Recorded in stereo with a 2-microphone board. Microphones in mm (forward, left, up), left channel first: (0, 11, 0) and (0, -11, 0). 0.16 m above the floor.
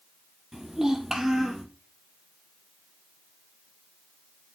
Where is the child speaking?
20° right (ahead or behind), 2.5 m.